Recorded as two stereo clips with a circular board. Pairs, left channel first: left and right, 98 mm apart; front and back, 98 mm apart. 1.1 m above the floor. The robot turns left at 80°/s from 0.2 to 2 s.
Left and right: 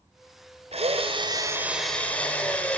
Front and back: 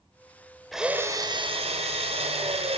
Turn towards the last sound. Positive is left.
turn(degrees=165)